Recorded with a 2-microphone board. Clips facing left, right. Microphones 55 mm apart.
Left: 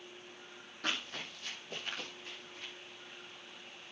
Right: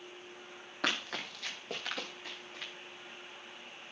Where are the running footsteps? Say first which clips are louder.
Right 4 dB; 85° right, 5.5 m.